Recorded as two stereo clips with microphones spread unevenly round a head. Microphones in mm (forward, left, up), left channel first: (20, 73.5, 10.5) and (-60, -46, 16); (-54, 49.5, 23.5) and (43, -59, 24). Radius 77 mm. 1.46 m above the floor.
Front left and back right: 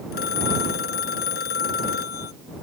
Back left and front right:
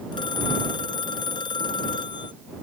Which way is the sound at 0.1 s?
70° left.